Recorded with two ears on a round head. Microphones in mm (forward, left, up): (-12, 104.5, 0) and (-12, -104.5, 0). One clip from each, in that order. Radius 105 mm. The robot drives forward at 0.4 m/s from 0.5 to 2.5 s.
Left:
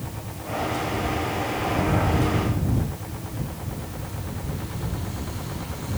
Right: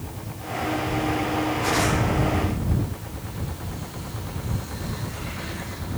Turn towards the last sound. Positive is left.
No sound to turn to.